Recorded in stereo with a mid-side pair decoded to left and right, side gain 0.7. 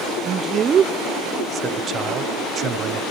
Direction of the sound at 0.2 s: 35° right.